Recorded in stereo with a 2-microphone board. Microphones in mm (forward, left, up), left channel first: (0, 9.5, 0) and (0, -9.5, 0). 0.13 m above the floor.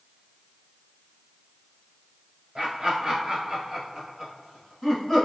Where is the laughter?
30° right (ahead or behind), 1.5 m; by 5.2 s 25° left (ahead or behind), 1.3 m.